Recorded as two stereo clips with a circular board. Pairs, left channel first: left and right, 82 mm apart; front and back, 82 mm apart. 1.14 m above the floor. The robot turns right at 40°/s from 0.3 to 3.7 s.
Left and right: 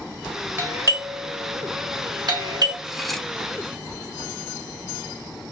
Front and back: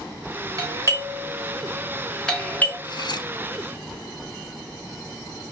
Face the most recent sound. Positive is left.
turn(degrees=25)